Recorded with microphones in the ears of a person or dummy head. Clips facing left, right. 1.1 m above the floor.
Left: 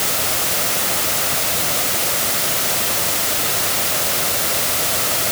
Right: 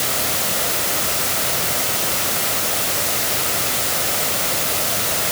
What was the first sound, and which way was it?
Only background noise.